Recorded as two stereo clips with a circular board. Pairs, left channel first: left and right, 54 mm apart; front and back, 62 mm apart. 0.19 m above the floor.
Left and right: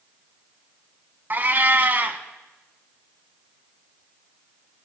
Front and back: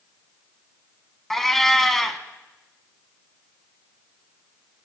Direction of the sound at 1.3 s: 80° right.